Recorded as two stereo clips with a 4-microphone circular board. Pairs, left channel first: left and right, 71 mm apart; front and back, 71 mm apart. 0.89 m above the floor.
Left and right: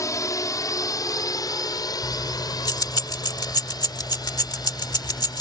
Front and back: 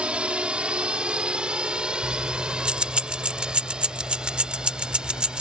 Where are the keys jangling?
105° left.